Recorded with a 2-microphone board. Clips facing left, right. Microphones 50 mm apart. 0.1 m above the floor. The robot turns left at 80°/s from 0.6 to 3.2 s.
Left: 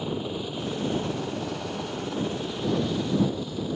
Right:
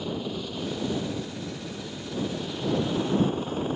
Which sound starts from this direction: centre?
A helicopter, at 0.0 s.